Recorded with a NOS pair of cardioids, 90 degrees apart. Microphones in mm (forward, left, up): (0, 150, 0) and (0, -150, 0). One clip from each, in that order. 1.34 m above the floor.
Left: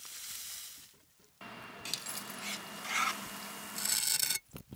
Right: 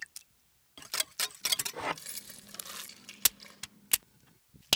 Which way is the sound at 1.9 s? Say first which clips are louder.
Left 4 dB; 10° right.